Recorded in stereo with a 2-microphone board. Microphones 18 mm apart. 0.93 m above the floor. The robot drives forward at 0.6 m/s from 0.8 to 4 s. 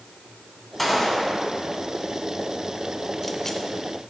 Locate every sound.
0.8 s a gunshot: 10° left (ahead or behind), 1.8 m; by 3.6 s 25° left (ahead or behind), 0.6 m